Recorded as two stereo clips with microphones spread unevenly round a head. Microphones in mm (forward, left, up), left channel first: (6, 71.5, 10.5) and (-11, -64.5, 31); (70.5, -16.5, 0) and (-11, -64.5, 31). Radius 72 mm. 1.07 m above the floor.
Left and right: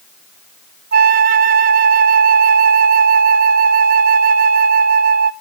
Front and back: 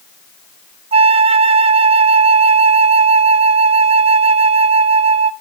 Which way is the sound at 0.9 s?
125° right.